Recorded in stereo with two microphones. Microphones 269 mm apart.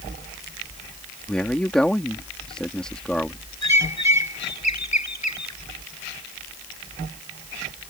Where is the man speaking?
5° left (ahead or behind).